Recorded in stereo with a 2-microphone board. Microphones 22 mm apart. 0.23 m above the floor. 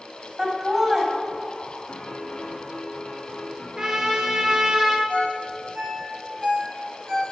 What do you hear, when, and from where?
0.4 s laughter: 15° right (ahead or behind), 1.2 m
1.9 s a piano: 55° left (ahead or behind), 1.3 m
3.8 s a trumpet: 30° right (ahead or behind), 1.1 m
5.1 s a ringtone: 50° right (ahead or behind), 3 m